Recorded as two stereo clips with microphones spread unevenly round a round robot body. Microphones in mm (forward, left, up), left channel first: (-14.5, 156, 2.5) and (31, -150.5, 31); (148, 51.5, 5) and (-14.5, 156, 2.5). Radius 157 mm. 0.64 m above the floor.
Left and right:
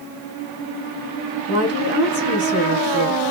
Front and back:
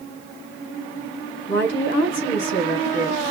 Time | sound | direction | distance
1.5 | a woman speaking | 5° right | 4 m